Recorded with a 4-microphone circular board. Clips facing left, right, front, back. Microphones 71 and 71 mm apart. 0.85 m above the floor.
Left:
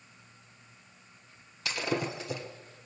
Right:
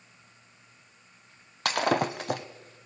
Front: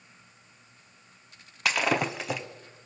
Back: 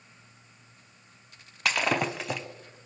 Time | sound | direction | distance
1.6 | breaking glass | 90° right | 1.3 m